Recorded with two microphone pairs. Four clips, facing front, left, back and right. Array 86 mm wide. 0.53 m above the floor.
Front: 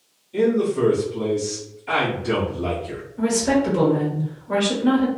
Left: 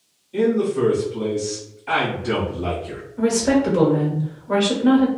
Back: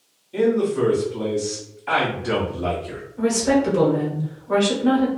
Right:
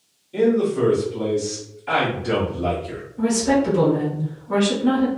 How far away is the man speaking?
About 1.4 m.